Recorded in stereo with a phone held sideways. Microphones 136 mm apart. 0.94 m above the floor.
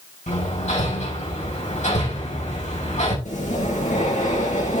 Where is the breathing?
60° left (ahead or behind), 6 m.